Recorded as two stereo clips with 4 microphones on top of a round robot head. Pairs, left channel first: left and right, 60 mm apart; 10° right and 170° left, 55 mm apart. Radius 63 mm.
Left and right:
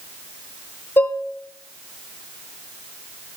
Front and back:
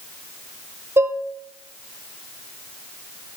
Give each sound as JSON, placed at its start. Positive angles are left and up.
{"t": 1.0, "sound": "dishes clattering", "azimuth_deg": 140, "distance_m": 0.9}